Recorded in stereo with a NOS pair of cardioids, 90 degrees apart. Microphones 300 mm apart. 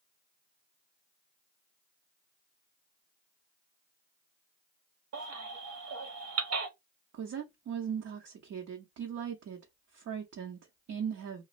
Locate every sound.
5.1 s a baby crying: 60° right, 1.1 m
7.1 s a woman speaking: 60° right, 0.8 m